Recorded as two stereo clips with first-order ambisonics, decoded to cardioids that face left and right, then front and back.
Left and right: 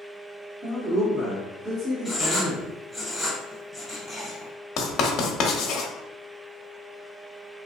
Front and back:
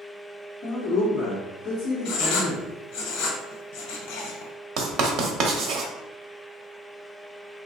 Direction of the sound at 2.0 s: Straight ahead.